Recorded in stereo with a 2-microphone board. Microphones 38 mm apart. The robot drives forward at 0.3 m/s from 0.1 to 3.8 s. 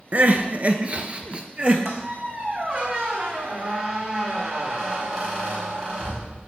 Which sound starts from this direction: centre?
A squeak, at 1.9 s.